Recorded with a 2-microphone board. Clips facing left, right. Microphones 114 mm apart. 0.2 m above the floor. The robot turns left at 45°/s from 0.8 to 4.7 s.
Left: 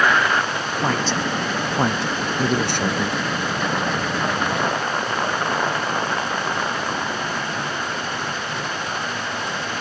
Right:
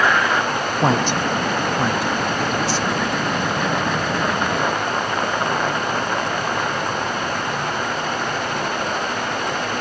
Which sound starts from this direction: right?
A woman speaking, at 0.8 s.